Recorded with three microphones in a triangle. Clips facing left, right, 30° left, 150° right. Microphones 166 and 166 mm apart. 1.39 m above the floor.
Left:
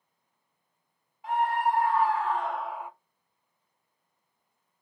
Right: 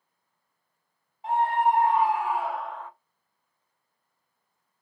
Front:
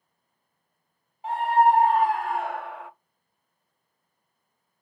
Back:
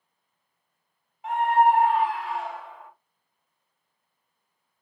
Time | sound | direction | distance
1.2 | a scream | 30° right | 1.4 m